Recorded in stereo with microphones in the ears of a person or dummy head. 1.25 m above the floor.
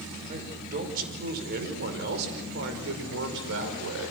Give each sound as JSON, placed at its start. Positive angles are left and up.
{"t": 0.3, "sound": "a man speaking", "side_deg": -40, "distance_m": 5.5}